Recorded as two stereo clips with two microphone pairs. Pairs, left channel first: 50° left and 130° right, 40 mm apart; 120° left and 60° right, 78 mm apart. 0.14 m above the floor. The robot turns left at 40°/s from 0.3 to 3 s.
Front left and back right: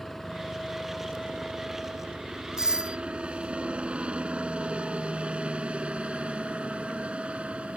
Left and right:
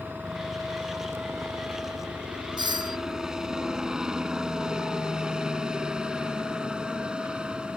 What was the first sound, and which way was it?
A helicopter, 30° right.